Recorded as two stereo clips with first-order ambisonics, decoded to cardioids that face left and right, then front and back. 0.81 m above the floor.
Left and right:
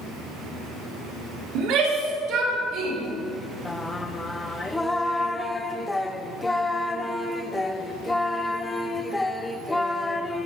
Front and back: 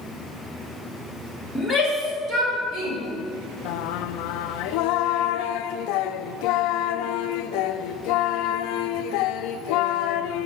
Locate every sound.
1.6 s a shout: 95° right, 1.8 m; by 3.0 s 135° right, 3 m
3.6 s singing: 5° left, 0.5 m